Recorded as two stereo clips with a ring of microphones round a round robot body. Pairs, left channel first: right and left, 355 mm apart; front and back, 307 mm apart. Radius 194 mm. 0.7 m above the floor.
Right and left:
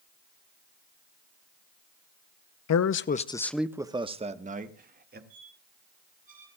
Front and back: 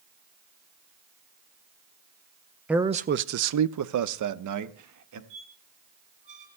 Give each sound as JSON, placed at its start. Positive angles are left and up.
{"t": 2.7, "sound": "a man speaking", "azimuth_deg": -95, "distance_m": 0.6}
{"t": 5.3, "sound": "a squeak", "azimuth_deg": 160, "distance_m": 4.5}